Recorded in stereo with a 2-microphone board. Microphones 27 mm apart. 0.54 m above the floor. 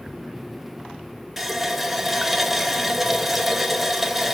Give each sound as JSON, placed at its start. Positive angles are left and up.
{"t": 1.4, "sound": "a running tap", "side_deg": -10, "distance_m": 1.3}